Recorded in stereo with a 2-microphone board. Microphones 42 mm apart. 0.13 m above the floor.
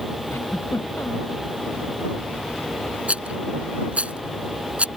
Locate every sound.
0.3 s a giggle: 70° left (ahead or behind)
3.1 s a rattle: 30° right (ahead or behind)